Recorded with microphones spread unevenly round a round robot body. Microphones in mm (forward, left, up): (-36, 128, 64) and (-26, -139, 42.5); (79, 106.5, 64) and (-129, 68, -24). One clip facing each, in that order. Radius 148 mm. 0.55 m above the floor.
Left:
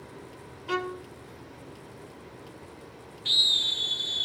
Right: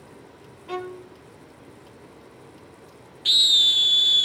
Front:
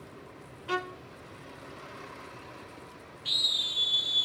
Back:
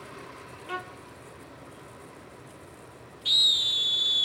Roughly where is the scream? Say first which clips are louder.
Right 1 dB, back 1 dB; right.